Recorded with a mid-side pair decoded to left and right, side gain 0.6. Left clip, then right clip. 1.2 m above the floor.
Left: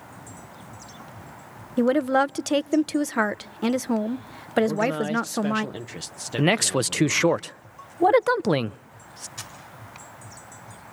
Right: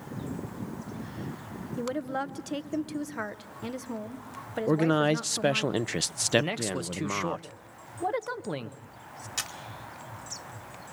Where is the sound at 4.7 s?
40° right, 0.7 m.